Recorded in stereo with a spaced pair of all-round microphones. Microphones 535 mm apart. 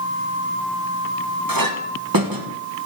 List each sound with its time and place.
1.5 s a clink: 40° right (ahead or behind), 1.0 m